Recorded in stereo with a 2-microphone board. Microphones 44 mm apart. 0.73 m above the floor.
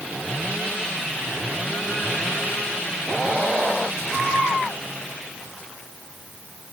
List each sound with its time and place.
Only background noise.